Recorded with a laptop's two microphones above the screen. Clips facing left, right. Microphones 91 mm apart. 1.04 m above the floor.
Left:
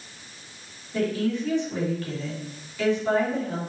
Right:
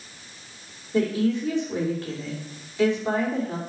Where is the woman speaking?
20° right (ahead or behind), 3 m.